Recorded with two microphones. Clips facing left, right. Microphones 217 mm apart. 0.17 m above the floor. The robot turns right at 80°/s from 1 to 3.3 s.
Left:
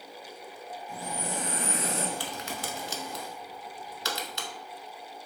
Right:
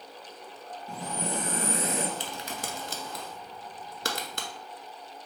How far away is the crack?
About 0.6 m.